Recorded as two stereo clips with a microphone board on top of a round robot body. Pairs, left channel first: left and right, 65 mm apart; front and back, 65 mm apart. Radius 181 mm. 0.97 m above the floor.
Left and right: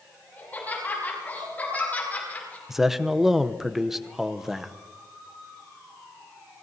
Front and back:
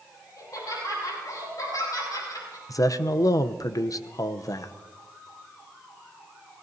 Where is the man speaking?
5° right, 0.8 m.